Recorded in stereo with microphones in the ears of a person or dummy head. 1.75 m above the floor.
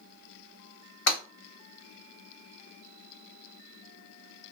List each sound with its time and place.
1.1 s breaking glass: 50° left (ahead or behind), 1.7 m